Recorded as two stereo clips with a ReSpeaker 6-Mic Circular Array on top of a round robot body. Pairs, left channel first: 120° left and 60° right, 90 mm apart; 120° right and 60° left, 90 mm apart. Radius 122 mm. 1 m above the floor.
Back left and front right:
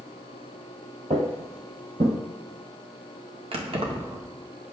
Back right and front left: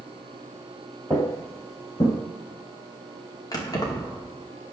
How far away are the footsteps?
About 1.1 m.